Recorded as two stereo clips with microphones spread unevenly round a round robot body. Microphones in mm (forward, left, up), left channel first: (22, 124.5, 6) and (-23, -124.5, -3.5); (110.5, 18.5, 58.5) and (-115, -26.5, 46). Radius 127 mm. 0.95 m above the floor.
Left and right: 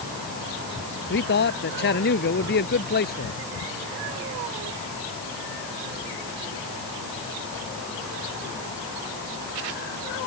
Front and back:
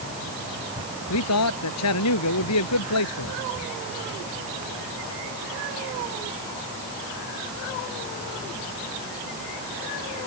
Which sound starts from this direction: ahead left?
A man speaking, at 1.1 s.